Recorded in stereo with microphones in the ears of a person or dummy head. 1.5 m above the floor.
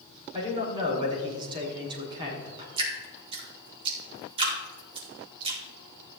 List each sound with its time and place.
0.3 s a man speaking: 30° right (ahead or behind), 4.5 m
2.8 s dripping: 35° right (ahead or behind), 4 m